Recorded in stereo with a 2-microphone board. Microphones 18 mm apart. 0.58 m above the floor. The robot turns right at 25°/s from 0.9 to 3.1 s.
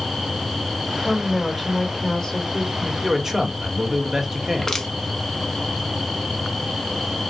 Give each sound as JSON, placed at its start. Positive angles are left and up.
{"t": 1.0, "sound": "a woman speaking", "azimuth_deg": 5, "distance_m": 2.5}
{"t": 3.0, "sound": "a man speaking", "side_deg": -25, "distance_m": 1.1}
{"t": 4.6, "sound": "crushing", "side_deg": 25, "distance_m": 0.7}